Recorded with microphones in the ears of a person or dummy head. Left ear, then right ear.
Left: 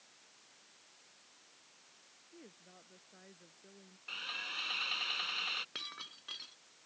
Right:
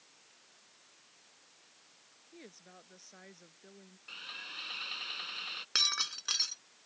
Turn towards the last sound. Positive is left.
turn(degrees=-65)  # may be behind; listen again after turning